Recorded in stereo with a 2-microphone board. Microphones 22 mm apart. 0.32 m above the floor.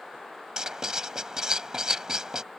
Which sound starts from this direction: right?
Writing, at 0.6 s.